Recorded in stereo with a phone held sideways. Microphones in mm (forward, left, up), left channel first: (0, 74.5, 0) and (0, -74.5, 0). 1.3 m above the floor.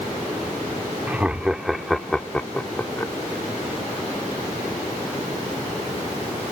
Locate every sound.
1.1 s laughter: 10° right (ahead or behind); by 3.1 s 20° left (ahead or behind)